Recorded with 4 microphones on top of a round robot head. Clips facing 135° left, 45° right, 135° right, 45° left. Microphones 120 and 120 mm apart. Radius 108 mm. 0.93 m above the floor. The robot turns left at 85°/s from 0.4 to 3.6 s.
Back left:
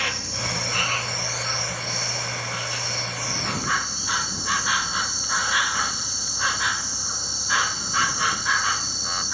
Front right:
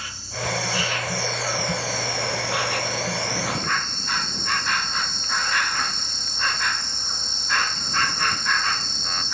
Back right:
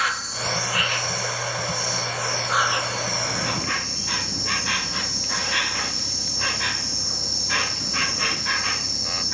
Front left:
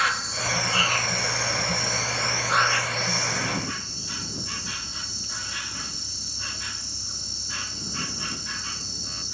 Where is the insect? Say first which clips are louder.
Even, even; 135° left; by 9.3 s 140° right.